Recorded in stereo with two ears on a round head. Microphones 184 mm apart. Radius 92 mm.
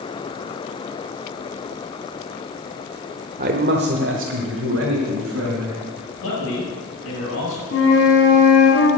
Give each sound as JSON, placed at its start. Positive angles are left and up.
{"t": 3.4, "sound": "a man speaking", "side_deg": -35, "distance_m": 0.8}
{"t": 6.2, "sound": "a man speaking", "side_deg": 70, "distance_m": 6.5}
{"t": 7.7, "sound": "a flute", "side_deg": 65, "distance_m": 3.5}